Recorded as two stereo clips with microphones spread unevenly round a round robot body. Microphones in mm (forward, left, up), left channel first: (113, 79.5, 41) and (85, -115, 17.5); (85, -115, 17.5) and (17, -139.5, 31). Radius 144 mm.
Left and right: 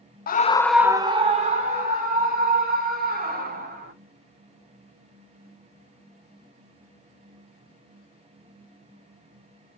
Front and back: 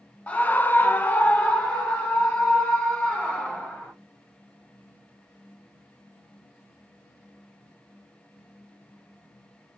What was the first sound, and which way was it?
A scream, 65° left.